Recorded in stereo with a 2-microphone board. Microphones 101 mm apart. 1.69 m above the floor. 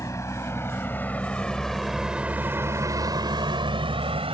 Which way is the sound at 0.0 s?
35° left (ahead or behind).